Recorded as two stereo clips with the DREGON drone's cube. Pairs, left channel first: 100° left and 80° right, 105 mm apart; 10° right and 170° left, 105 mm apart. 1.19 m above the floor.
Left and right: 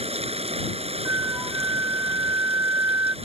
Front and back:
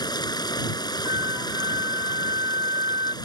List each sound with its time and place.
0.0 s running water: 60° right
1.1 s a flute: 135° right